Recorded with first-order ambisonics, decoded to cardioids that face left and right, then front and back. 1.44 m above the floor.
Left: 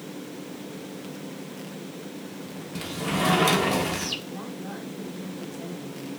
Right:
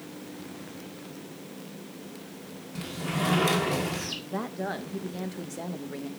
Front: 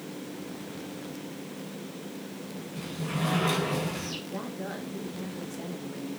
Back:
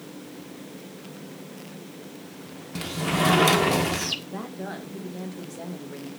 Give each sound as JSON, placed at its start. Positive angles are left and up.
{"t": 2.8, "sound": "a sliding door", "azimuth_deg": 165, "distance_m": 1.5}
{"t": 4.3, "sound": "a woman speaking", "azimuth_deg": -100, "distance_m": 1.8}